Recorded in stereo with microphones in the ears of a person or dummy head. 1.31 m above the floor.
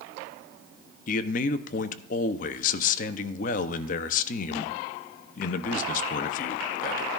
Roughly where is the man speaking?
Left.